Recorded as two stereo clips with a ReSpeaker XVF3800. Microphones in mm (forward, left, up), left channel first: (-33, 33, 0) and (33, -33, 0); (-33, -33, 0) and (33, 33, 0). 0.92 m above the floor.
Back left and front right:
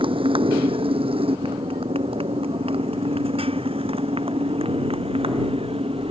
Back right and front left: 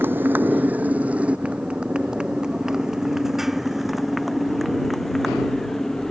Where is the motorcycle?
25° right; by 6.1 s 50° right.